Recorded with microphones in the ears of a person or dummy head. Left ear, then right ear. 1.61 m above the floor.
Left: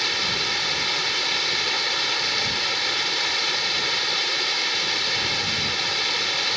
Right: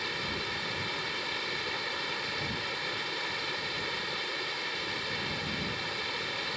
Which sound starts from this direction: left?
Running water, at 0.0 s.